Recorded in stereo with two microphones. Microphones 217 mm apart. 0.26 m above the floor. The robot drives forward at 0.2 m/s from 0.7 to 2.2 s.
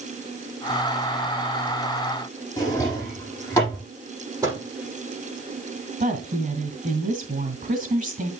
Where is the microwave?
15° right (ahead or behind), 6.5 m.